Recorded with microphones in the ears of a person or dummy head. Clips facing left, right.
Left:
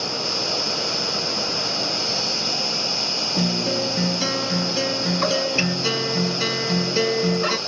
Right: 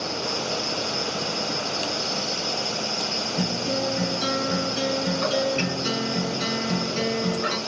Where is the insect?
65° left (ahead or behind), 3.5 m.